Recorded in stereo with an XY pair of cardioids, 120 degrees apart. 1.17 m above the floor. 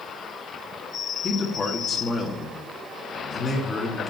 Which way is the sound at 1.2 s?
35° left.